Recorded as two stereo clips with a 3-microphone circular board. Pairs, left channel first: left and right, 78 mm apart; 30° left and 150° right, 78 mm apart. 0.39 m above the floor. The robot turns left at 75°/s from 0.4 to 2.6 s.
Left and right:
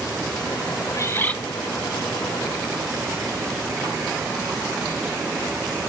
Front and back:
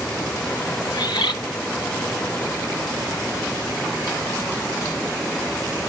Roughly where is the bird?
Ahead left.